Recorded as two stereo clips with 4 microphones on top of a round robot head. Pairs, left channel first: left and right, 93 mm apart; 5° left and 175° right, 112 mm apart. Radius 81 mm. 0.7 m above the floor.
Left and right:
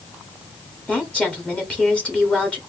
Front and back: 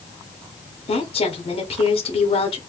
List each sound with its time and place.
0.9 s a woman speaking: 15° left, 1.4 m